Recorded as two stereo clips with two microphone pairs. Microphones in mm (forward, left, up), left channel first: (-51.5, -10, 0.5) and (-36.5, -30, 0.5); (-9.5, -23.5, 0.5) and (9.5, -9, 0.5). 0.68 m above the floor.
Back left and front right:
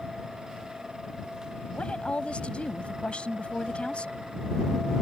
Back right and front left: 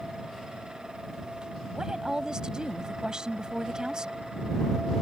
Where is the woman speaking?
90° left.